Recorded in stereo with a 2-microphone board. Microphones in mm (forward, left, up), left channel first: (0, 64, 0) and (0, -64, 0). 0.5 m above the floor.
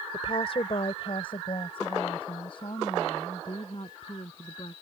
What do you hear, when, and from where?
0.1 s a woman speaking: 50° left (ahead or behind); by 4.7 s 40° left (ahead or behind)